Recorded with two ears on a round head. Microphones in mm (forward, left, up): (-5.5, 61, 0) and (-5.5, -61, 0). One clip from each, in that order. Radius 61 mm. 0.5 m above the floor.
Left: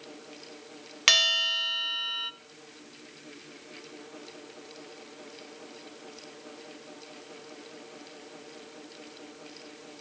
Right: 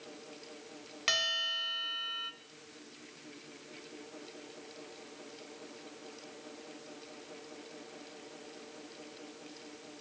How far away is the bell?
About 0.6 m.